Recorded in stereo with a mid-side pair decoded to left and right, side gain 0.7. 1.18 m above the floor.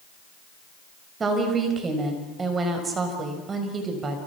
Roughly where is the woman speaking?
Ahead right.